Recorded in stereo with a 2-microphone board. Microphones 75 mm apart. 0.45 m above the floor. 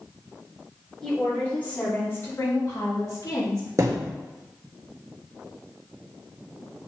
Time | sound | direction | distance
1.0 | a woman speaking | 10° left (ahead or behind) | 3 m
3.8 | a thud | 40° right (ahead or behind) | 1.3 m